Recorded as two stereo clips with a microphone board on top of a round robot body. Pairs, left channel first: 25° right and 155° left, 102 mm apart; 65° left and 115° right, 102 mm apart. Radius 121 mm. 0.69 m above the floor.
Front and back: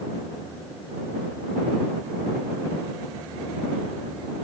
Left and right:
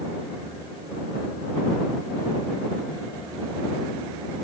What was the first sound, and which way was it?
Only background noise.